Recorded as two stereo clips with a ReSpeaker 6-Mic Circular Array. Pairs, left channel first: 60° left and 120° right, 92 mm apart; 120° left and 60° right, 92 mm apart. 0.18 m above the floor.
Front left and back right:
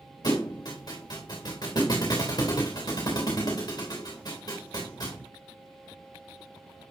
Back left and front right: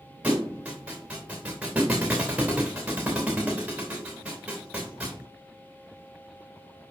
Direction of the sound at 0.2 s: 20° left.